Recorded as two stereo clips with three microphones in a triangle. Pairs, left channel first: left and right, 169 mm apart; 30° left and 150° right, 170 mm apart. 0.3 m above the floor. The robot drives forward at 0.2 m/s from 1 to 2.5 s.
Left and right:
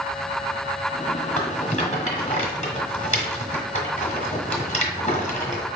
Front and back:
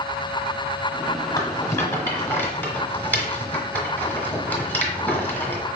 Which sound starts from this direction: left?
A rattle, at 1.4 s.